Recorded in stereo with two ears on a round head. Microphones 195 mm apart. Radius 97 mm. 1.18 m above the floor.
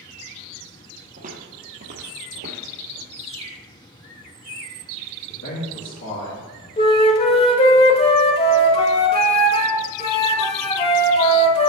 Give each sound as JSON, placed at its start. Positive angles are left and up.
{"t": 1.2, "sound": "footsteps", "side_deg": -40, "distance_m": 1.9}
{"t": 3.1, "sound": "a bird", "side_deg": -30, "distance_m": 1.3}
{"t": 5.3, "sound": "a man speaking", "side_deg": 60, "distance_m": 2.5}
{"t": 6.8, "sound": "a flute", "side_deg": 25, "distance_m": 1.1}